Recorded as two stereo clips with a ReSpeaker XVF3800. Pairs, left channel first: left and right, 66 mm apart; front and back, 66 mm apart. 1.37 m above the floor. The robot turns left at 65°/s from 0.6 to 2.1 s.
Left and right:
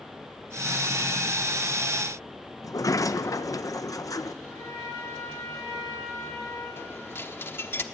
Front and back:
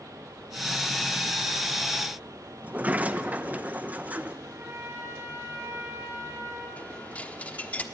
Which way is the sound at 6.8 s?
55° left.